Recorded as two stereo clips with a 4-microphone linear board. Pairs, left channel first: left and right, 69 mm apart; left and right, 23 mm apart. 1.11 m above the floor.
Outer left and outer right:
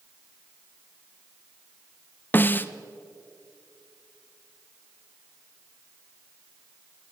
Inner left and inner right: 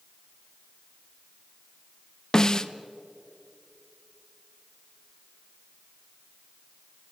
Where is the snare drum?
30° left (ahead or behind), 0.8 m.